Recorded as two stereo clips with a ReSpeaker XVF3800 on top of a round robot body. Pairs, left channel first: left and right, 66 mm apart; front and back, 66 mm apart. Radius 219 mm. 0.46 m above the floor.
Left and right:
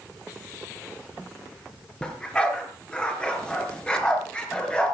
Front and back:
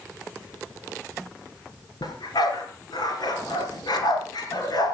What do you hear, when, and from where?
2.0 s a dog barking: 15° left, 3.5 m